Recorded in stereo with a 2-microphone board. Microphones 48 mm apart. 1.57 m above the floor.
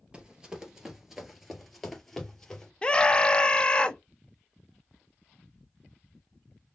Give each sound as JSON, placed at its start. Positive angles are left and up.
{"t": 0.1, "sound": "running footsteps", "side_deg": -20, "distance_m": 1.6}
{"t": 2.8, "sound": "a scream", "side_deg": 20, "distance_m": 0.8}